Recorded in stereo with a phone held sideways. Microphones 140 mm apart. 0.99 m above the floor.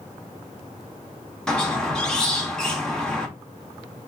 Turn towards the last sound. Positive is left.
turn(degrees=5)  # may be behind; listen again after turning